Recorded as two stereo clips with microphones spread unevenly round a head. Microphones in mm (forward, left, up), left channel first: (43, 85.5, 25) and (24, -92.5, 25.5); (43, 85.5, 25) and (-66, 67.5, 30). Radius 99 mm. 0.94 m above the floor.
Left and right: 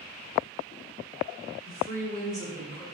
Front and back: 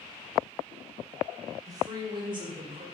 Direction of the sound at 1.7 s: 130° left.